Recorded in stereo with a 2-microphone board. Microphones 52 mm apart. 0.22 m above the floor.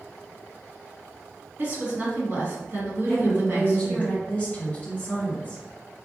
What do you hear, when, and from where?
1.6 s a woman speaking: 45° right (ahead or behind), 1.7 m
3.1 s a woman speaking: 25° left (ahead or behind), 1.5 m